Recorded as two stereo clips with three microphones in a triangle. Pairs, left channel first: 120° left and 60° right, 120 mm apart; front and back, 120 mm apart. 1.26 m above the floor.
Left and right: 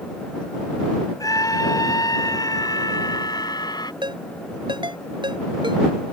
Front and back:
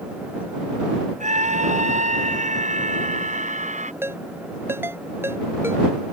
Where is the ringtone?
110° right.